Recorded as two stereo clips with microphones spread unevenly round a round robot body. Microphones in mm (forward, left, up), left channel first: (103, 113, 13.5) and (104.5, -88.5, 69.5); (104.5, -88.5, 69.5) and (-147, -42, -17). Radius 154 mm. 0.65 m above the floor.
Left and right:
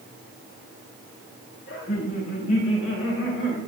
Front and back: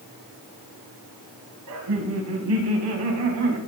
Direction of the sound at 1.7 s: 145° left.